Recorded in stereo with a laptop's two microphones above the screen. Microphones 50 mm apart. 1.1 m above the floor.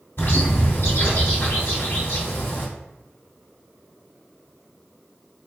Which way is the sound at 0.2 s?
55° left (ahead or behind).